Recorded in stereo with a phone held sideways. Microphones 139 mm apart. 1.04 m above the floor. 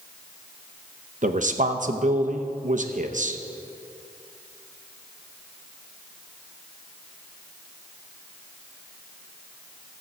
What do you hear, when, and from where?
1.2 s a man speaking: 60° right (ahead or behind), 0.8 m